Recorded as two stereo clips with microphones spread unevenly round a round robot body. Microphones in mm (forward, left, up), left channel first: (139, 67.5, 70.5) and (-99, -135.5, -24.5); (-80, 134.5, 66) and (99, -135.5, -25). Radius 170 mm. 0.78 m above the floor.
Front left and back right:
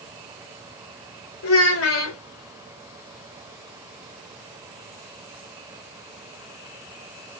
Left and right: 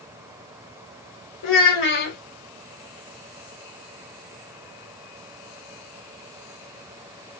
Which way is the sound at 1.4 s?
95° left.